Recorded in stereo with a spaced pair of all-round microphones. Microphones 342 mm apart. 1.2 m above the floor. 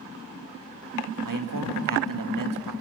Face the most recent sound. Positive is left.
turn(degrees=-65)  # may be behind; listen again after turning